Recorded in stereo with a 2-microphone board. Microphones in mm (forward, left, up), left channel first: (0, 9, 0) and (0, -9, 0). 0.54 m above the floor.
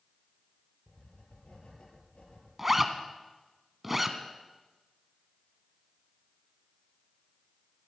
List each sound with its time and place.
0.9 s writing: 90° left, 4 m
2.6 s a zipper: 5° right (ahead or behind), 1.2 m